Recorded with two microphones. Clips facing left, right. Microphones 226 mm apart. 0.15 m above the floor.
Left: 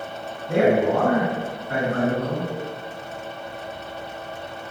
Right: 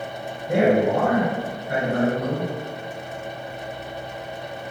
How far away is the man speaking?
About 1.6 m.